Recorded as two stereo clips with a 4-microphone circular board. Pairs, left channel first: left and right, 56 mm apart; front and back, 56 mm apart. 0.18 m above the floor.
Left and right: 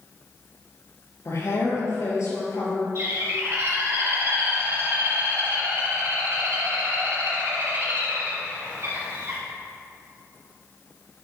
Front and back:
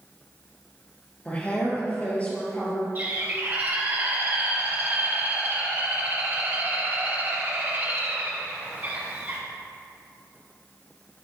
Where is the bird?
130° right, 3.5 m.